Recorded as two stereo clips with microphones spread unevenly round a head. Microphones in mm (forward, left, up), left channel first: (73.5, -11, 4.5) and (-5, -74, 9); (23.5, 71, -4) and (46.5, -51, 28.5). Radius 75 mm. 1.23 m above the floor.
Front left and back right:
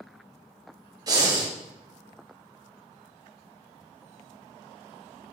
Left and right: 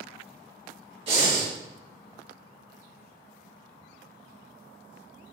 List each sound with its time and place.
1.1 s breathing: 100° right, 0.9 m